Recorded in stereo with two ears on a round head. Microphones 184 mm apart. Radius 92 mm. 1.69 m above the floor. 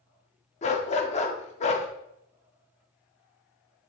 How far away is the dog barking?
About 1.4 m.